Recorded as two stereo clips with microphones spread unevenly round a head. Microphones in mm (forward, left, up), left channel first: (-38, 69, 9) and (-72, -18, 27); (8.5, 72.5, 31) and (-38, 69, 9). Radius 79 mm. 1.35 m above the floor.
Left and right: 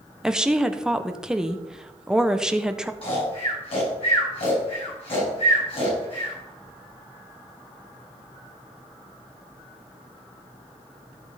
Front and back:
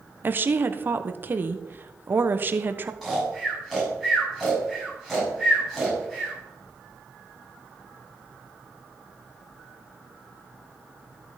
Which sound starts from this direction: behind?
A woman speaking, at 0.2 s.